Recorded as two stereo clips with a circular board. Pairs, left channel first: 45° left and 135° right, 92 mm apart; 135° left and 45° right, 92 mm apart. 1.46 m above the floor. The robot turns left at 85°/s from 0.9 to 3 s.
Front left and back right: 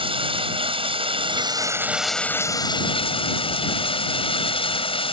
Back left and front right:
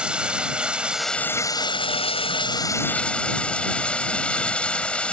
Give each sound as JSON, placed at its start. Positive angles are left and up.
{"t": 0.0, "sound": "running water", "azimuth_deg": -125}